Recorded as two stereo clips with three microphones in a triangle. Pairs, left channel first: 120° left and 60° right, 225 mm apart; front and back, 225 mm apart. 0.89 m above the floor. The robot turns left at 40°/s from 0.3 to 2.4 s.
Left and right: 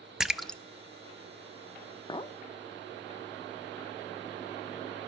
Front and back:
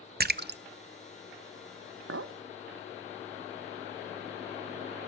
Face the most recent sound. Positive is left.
turn(degrees=175)